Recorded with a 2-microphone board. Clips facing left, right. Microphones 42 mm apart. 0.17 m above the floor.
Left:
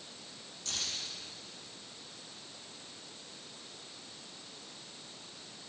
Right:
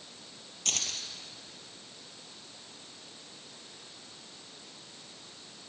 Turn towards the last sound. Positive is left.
turn(degrees=-65)  # may be behind; listen again after turning